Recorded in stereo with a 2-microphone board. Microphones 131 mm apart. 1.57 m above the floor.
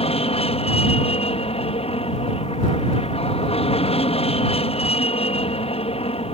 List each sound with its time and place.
0.0 s an aircraft: 50° left (ahead or behind)